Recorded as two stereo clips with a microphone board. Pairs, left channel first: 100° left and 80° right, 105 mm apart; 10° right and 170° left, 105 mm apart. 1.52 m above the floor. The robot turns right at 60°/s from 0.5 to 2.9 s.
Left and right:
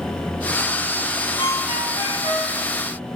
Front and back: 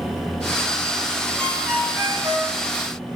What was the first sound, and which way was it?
A ringtone, 65° left.